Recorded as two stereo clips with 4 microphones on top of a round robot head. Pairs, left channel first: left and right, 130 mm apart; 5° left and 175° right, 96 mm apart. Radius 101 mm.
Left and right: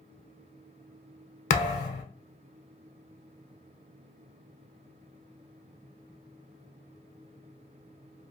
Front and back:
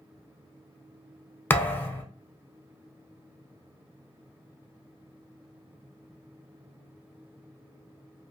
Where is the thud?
75° left, 0.6 m.